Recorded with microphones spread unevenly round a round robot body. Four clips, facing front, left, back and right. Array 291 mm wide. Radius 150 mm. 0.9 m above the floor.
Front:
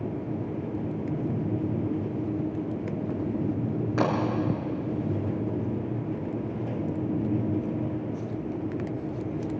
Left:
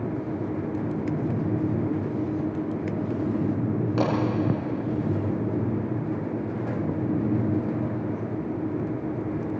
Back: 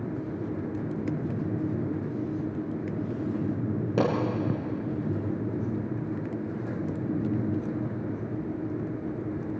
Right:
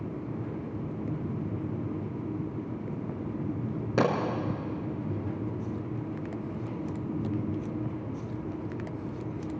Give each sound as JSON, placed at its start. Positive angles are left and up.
{"t": 4.0, "sound": "a pop", "azimuth_deg": -150, "distance_m": 6.0}